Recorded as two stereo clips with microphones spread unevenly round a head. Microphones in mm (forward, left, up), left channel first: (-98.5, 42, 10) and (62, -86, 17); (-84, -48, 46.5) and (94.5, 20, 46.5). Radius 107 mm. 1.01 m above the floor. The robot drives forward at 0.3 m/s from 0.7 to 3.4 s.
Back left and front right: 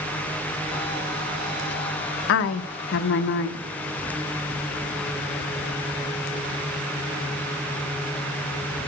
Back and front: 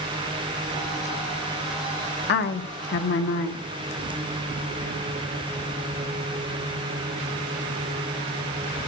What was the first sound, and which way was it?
A woman speaking, 165° left.